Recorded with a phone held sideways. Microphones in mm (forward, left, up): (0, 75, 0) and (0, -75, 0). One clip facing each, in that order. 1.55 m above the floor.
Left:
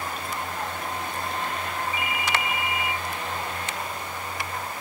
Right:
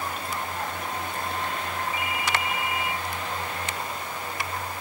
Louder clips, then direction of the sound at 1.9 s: Even; 60° left (ahead or behind).